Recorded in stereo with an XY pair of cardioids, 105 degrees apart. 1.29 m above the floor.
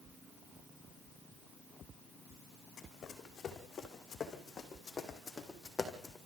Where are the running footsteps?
60° left, 4.5 m; by 6.2 s 20° left, 4 m.